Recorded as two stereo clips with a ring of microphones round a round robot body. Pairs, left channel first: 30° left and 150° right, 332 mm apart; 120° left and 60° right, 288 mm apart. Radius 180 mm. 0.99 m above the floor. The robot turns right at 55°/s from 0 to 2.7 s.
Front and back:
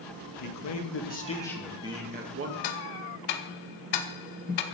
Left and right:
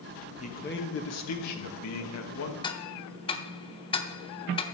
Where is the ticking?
45° left, 0.8 m; by 4.7 s 50° left, 0.8 m.